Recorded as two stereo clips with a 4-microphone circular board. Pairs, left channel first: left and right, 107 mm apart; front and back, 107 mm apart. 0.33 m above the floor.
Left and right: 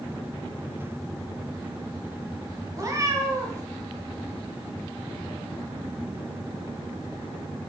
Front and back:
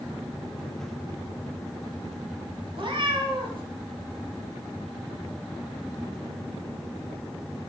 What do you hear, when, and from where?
2.8 s a cat meowing: 150° right, 1.3 m